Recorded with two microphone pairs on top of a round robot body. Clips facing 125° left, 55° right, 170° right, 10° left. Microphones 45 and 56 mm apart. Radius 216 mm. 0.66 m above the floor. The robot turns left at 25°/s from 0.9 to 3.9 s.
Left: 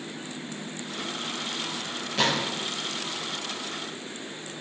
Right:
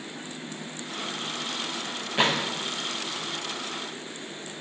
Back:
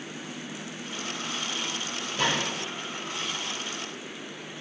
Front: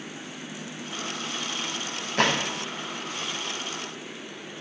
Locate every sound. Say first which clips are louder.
2.2 s a gunshot: right 1 dB, front 4 dB; 5° left, 0.6 m; by 2.5 s 5° right, 0.6 m